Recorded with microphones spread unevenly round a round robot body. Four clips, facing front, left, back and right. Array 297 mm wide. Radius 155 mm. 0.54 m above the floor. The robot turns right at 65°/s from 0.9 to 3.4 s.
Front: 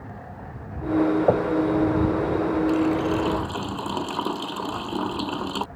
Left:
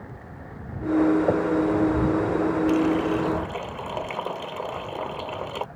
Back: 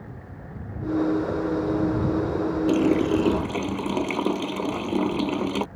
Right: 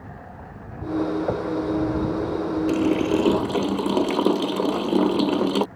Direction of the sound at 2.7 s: 165° right.